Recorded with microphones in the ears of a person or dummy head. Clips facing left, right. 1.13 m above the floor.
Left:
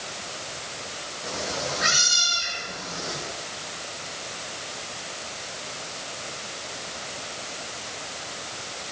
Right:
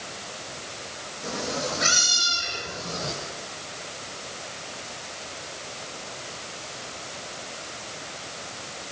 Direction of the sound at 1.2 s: 25° right (ahead or behind).